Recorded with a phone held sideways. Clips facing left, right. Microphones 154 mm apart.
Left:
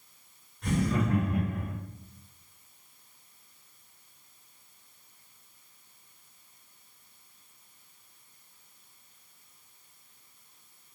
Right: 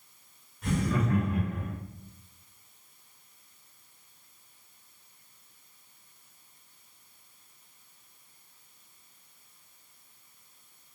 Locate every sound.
0.6 s laughter: 5° right (ahead or behind), 0.6 m; by 1.7 s 25° left (ahead or behind), 1.2 m